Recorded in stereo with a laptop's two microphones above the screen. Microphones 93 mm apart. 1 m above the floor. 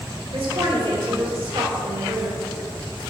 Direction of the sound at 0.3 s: 75° right (ahead or behind).